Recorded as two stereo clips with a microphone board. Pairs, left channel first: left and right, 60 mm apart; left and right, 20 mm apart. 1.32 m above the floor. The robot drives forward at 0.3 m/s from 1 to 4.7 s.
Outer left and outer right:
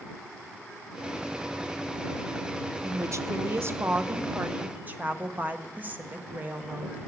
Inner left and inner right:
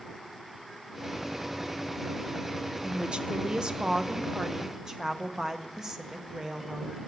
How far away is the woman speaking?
About 0.5 m.